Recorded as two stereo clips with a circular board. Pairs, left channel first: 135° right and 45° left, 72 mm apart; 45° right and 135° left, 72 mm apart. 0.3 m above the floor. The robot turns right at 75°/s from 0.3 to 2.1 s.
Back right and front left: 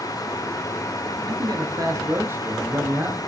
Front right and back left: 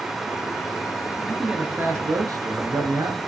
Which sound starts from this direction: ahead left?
A man speaking, at 1.3 s.